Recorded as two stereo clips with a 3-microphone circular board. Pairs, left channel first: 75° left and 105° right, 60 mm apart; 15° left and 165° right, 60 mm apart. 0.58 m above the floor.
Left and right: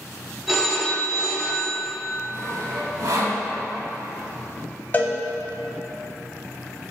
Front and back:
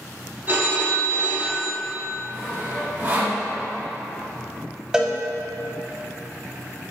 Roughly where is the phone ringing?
Behind.